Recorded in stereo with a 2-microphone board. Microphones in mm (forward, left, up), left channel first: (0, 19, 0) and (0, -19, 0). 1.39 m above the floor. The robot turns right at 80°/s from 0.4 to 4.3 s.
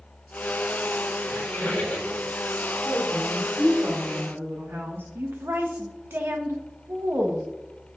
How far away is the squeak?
About 3.5 m.